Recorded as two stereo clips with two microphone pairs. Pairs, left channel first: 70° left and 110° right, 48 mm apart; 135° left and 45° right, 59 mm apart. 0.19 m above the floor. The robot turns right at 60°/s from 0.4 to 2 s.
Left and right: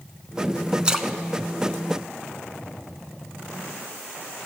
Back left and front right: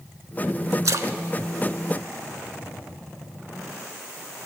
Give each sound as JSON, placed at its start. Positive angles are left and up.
{"t": 0.8, "sound": "a splash", "azimuth_deg": -50, "distance_m": 0.5}